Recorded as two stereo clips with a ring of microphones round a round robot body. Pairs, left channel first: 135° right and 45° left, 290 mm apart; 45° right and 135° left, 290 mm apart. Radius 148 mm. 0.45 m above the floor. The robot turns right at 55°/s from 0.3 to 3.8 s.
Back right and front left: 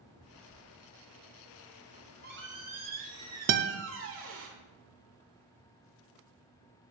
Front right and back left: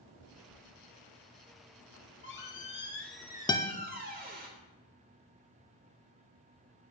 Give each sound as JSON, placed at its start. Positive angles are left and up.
{"t": 1.8, "sound": "a squeak", "azimuth_deg": -30, "distance_m": 1.2}
{"t": 3.5, "sound": "a guitar", "azimuth_deg": 25, "distance_m": 0.5}